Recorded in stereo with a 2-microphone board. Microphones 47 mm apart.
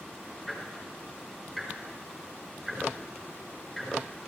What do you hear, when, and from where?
0.5 s ticking: 5° left (ahead or behind), 5.5 m